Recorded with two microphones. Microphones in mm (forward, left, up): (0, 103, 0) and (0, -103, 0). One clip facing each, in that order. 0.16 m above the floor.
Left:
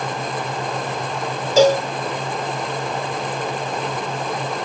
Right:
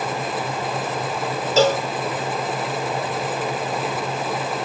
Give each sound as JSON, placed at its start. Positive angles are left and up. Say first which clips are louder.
{"t": 1.6, "sound": "a cowbell", "louder": "left 4 dB", "side_deg": 15, "distance_m": 0.8}